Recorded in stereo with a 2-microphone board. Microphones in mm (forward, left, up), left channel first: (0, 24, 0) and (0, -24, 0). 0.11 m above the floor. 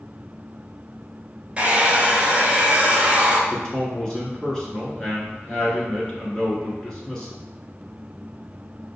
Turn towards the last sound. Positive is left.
turn(degrees=15)  # may be behind; listen again after turning